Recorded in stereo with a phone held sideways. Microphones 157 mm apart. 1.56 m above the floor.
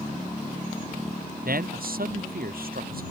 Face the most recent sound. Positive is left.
turn(degrees=-70)  # may be behind; listen again after turning